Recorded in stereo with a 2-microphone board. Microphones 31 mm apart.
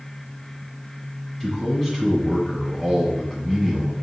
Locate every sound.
1.4 s a man speaking: 10° left (ahead or behind), 1.7 m